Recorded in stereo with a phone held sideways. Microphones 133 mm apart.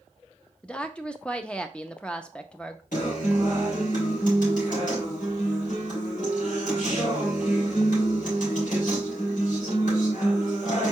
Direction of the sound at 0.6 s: 10° left (ahead or behind).